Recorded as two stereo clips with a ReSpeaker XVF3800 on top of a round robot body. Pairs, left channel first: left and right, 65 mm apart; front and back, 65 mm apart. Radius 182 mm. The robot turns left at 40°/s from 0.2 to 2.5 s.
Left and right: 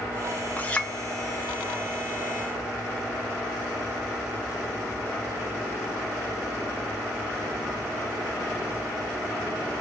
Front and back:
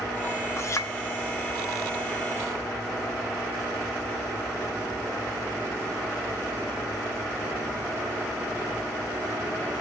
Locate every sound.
0.6 s a clink: 30° left, 0.7 m; by 0.9 s 20° left, 0.7 m